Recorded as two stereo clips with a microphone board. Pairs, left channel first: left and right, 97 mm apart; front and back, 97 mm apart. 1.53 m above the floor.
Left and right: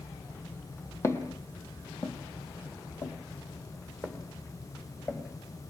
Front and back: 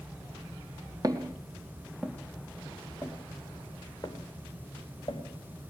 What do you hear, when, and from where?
1.0 s footsteps: 145° left, 2.5 m; by 5.2 s 30° left, 4 m